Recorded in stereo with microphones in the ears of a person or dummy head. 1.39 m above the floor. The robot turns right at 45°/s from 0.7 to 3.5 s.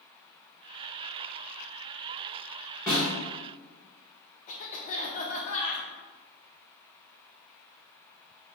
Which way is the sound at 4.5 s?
40° left (ahead or behind).